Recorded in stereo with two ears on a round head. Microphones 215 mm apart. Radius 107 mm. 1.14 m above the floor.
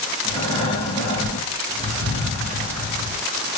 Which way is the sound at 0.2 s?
25° left (ahead or behind).